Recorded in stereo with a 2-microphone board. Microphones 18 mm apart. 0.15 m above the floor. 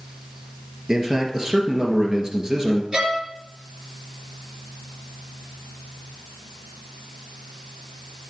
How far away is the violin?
About 1.8 m.